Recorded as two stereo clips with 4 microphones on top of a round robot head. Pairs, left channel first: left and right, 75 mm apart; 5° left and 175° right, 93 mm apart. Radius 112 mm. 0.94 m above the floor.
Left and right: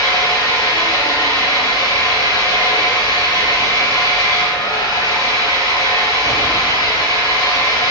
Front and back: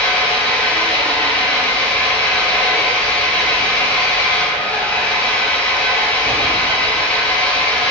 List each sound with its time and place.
0.0 s an engine running: 75° left, 7 m